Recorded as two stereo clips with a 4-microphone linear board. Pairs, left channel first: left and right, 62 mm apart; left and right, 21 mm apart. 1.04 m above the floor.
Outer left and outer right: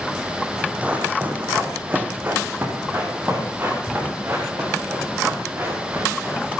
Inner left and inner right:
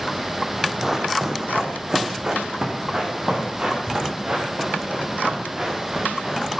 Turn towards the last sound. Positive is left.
turn(degrees=-35)  # may be behind; listen again after turning